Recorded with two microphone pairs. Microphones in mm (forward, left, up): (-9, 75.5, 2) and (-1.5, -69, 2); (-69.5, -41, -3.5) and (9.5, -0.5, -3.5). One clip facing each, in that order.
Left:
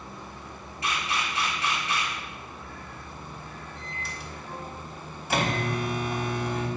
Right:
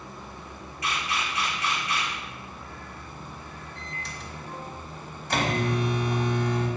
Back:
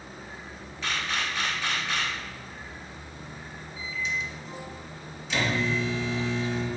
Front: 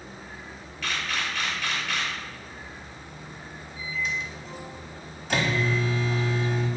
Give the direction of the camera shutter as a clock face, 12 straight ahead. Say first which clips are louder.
Even, even; 7 o'clock.